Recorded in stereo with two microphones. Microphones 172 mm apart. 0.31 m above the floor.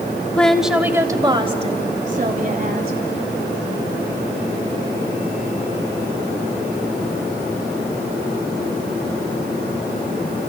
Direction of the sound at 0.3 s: 5° left (ahead or behind).